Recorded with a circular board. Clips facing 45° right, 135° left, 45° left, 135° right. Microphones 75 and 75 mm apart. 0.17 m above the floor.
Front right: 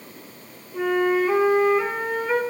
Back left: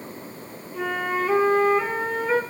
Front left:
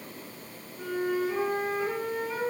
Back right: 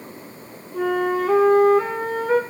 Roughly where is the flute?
Behind right.